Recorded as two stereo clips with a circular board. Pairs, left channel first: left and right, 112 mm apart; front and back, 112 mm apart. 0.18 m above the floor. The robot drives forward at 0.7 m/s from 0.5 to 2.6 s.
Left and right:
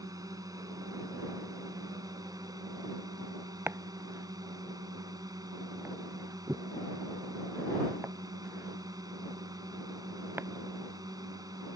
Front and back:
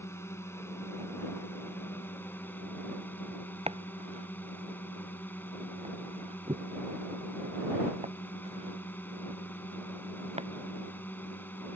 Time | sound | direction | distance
0.0 | a drone | 55° right | ?
3.7 | chopping | 160° right | ?